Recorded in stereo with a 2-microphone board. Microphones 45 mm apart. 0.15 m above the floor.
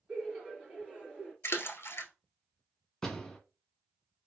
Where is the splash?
65° left (ahead or behind), 0.7 m.